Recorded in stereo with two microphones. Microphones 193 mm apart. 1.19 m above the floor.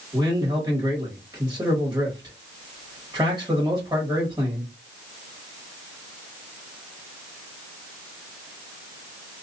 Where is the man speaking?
20° right (ahead or behind), 1.8 m.